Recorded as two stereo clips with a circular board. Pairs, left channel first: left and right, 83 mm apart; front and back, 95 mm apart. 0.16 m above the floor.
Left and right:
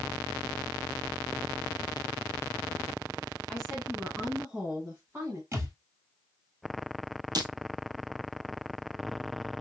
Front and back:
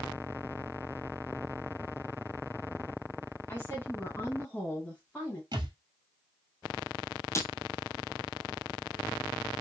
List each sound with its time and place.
3.5 s a woman speaking: 15° left, 1.7 m; by 5.4 s 60° right, 1.8 m
5.5 s a thud: 145° right, 1.2 m
7.3 s breaking glass: 55° right, 0.8 m